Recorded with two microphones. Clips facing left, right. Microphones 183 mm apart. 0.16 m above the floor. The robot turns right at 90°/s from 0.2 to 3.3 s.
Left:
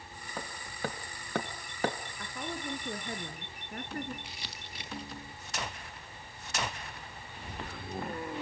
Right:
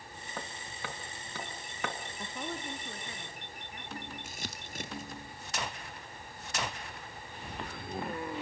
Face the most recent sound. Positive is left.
turn(degrees=-45)  # may be behind; listen again after turning